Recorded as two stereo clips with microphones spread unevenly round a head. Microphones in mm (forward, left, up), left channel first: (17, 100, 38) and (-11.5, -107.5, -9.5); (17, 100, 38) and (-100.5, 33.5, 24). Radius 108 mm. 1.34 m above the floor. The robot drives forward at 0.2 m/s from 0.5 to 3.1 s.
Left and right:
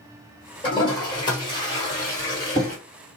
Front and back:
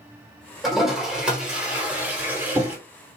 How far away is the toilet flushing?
About 1.2 m.